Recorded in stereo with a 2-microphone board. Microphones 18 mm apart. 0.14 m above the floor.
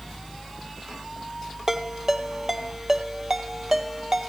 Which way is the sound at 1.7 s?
25° right (ahead or behind).